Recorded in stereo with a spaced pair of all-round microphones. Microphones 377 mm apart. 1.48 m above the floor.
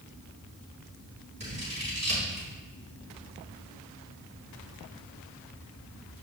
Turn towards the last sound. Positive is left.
turn(degrees=-45)  # may be behind; listen again after turning